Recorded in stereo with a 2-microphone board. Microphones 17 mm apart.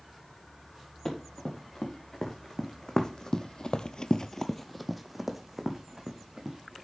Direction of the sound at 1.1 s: 35° left (ahead or behind).